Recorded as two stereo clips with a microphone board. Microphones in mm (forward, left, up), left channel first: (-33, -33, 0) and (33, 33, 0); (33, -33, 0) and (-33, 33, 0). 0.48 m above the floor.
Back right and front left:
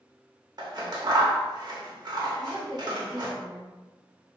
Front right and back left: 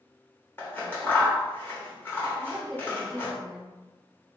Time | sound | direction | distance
0.6 | scissors | 15° left | 0.8 m
2.4 | a woman speaking | 45° left | 1.8 m